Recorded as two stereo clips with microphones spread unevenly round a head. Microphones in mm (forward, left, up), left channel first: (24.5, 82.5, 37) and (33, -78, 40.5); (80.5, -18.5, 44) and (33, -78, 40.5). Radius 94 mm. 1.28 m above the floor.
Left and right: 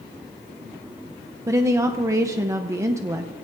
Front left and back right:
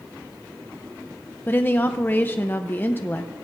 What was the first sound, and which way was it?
A woman speaking, 15° right.